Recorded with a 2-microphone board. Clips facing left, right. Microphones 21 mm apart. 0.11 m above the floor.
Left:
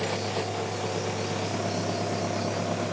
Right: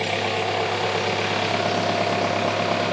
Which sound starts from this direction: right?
An engine running, at 0.0 s.